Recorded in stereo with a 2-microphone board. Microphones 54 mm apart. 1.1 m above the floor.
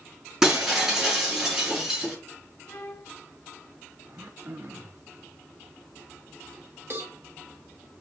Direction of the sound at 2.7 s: 55° left (ahead or behind).